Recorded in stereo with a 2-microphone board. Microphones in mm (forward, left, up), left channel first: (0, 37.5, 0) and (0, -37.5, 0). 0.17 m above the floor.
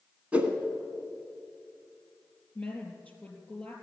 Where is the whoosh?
15° right (ahead or behind), 1.4 m.